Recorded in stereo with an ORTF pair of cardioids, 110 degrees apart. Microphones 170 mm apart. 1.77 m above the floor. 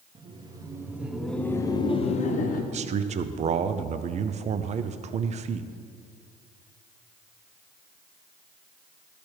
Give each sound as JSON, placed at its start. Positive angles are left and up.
{"t": 0.1, "sound": "laughter", "azimuth_deg": -30, "distance_m": 1.2}
{"t": 2.7, "sound": "a man speaking", "azimuth_deg": -40, "distance_m": 0.6}